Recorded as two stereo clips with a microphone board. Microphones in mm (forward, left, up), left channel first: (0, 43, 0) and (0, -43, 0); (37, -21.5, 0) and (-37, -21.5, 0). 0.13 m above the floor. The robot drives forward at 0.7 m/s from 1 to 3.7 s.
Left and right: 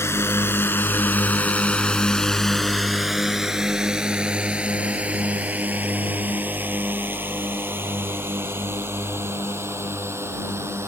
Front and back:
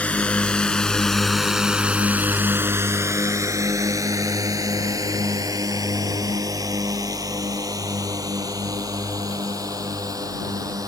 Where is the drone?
60° left; by 10.9 s 150° right.